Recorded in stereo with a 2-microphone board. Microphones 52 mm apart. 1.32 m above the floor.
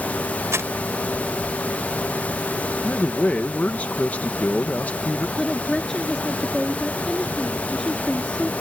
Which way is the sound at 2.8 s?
35° left (ahead or behind).